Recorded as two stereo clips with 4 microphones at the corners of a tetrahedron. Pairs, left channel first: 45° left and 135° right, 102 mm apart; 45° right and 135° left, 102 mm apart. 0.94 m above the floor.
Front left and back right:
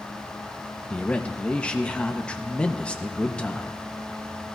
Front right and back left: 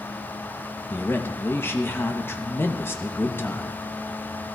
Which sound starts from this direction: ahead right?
A man speaking, at 0.9 s.